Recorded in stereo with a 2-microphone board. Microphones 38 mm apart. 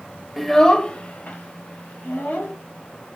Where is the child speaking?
Centre (ahead or behind), 0.6 m; by 2.5 s 65° left (ahead or behind), 1.6 m.